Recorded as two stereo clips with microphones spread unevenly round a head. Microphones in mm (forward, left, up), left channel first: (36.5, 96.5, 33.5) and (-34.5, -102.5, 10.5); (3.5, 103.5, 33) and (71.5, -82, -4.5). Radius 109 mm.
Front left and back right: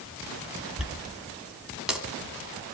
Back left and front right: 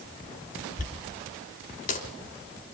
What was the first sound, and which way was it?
A dropped coin, 160° left.